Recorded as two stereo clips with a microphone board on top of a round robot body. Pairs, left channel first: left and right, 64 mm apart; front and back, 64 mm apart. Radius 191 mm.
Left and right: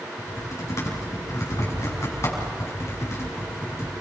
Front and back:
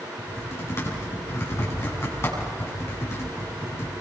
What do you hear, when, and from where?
0.2 s typing on a keyboard: 45° left, 6.5 m